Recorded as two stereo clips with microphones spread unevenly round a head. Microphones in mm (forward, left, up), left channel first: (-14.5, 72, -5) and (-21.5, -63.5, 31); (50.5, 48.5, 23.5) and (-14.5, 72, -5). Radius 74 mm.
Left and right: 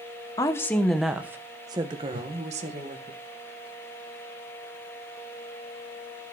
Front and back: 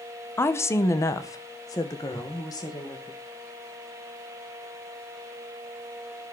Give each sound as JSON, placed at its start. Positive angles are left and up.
{"t": 0.4, "sound": "a woman speaking", "azimuth_deg": 15, "distance_m": 1.1}
{"t": 2.1, "sound": "a whoosh", "azimuth_deg": -105, "distance_m": 0.9}